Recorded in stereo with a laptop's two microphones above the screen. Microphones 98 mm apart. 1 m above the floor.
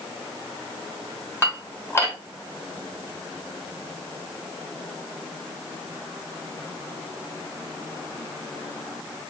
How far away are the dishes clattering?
About 1.2 m.